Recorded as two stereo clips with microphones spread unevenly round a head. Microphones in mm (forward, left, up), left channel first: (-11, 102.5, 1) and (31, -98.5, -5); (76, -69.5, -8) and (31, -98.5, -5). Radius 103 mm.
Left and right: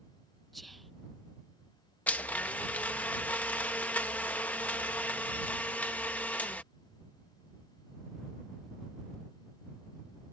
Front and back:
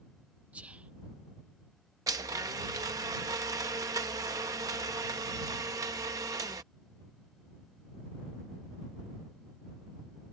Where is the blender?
175° right.